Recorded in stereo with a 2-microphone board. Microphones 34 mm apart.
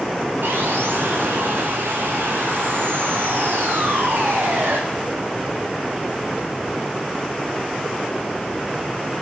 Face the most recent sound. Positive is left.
turn(degrees=-90)